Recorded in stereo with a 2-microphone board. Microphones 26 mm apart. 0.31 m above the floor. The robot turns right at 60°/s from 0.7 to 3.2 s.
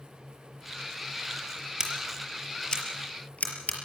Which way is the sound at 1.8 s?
25° right (ahead or behind).